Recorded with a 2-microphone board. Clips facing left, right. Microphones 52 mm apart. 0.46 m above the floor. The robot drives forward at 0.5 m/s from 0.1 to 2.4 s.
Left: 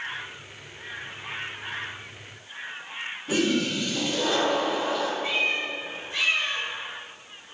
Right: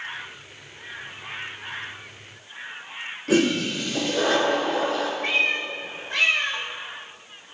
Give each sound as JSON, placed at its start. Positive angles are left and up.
{"t": 3.3, "sound": "a toilet flushing", "side_deg": -75, "distance_m": 3.0}
{"t": 5.2, "sound": "a cat meowing", "side_deg": -65, "distance_m": 1.7}